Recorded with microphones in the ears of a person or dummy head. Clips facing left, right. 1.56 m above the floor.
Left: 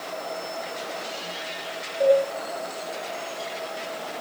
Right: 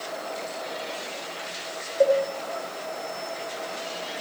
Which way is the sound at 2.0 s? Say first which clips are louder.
Left 1 dB; 50° right (ahead or behind).